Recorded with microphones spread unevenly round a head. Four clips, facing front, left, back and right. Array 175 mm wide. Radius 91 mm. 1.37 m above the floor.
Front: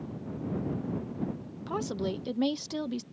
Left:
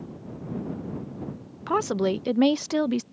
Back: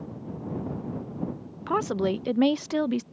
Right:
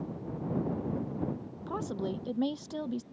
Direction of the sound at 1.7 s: 110° left.